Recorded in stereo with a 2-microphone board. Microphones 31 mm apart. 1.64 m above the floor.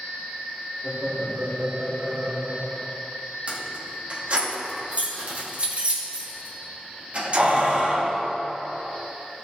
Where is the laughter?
40° right (ahead or behind), 4 m; by 2.9 s 30° right (ahead or behind), 3 m.